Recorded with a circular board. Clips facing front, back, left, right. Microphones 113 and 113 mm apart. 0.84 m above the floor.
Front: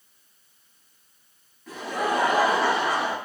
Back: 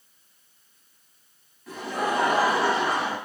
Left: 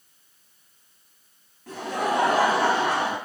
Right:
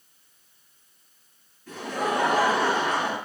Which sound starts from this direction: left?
Laughter, at 1.7 s.